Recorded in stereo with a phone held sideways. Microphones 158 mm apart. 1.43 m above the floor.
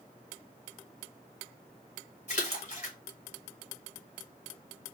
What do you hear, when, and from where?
2.3 s a splash: 50° left (ahead or behind), 1.5 m